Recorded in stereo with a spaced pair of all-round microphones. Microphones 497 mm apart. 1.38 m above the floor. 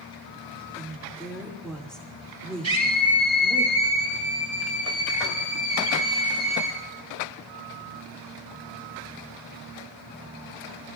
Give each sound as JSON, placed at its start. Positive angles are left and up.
{"t": 0.8, "sound": "a woman speaking", "side_deg": 0, "distance_m": 4.0}
{"t": 2.6, "sound": "a scream", "side_deg": -70, "distance_m": 6.5}